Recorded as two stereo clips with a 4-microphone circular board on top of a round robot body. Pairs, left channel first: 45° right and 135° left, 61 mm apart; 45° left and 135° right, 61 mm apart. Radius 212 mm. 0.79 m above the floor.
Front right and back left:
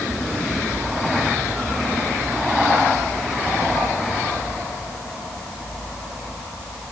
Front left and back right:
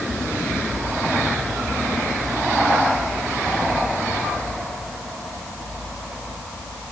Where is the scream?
No scream in this recording.